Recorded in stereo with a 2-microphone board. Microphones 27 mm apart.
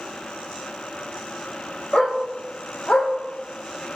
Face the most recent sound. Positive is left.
turn(degrees=55)  # may be behind; listen again after turning